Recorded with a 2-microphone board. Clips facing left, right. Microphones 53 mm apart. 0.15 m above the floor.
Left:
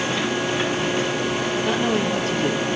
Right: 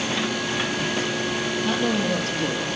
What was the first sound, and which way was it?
A woman speaking, 30° left (ahead or behind).